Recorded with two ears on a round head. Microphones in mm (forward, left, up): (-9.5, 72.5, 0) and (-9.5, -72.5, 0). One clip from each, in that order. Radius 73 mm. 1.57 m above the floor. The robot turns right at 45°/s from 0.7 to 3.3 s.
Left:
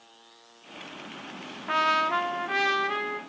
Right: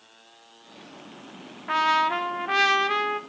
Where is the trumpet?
170° left, 0.5 m; by 3.2 s 120° right, 0.5 m.